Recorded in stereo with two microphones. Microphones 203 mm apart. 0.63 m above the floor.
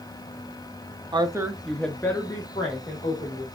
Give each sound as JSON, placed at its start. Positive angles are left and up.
{"t": 1.1, "sound": "a woman speaking", "side_deg": -25, "distance_m": 0.6}